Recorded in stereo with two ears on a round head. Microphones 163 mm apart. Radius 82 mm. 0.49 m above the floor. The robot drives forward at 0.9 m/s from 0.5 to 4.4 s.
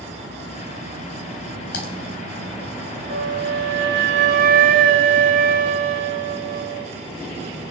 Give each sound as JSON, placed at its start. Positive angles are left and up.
{"t": 1.7, "sound": "typing on a keyboard", "side_deg": 65, "distance_m": 3.5}
{"t": 3.1, "sound": "a flute", "side_deg": -50, "distance_m": 1.0}